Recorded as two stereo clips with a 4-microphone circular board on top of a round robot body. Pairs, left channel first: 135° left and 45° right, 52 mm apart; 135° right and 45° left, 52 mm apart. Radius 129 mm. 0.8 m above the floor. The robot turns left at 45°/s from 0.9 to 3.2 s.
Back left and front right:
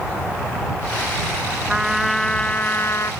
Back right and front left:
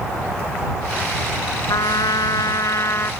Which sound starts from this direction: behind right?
A trumpet, at 1.7 s.